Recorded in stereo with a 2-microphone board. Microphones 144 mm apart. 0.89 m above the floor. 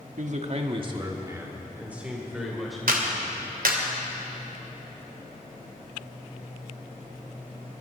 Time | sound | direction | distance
0.2 | a man speaking | 60° right (ahead or behind) | 1.3 m
2.9 | a clap | 85° right | 2.5 m